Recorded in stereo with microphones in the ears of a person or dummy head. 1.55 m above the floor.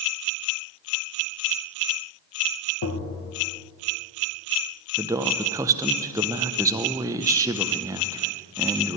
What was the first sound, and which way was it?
Tapping, 85° left.